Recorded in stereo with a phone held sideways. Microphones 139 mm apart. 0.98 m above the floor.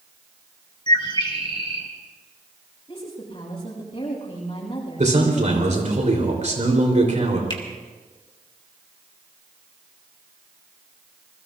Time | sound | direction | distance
0.9 | a bird | 30° left (ahead or behind) | 2 m
2.9 | a woman speaking | 35° left (ahead or behind) | 8.5 m
5.0 | a man speaking | 55° right (ahead or behind) | 3.5 m
7.5 | a finger snap | 35° left (ahead or behind) | 2 m